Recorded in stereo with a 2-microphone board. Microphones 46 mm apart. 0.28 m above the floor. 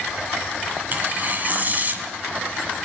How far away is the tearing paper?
About 1.3 m.